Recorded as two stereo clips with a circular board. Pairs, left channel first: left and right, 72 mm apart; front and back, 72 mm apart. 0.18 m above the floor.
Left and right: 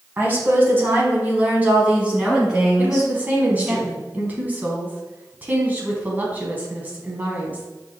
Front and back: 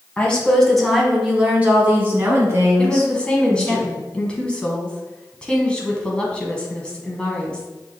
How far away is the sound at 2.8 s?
About 1.1 m.